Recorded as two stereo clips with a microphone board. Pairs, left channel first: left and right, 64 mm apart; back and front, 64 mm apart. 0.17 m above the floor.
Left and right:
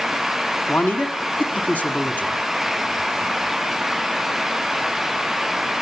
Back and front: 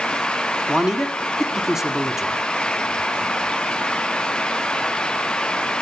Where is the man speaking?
75° left, 1.0 m.